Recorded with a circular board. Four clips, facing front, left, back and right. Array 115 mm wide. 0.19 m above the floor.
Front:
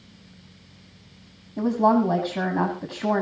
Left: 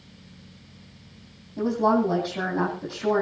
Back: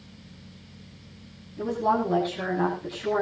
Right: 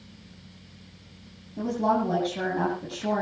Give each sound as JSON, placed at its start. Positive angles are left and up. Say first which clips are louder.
{"t": 1.6, "sound": "a woman speaking", "louder": "left 3 dB, front 5 dB", "azimuth_deg": 10, "distance_m": 10.0}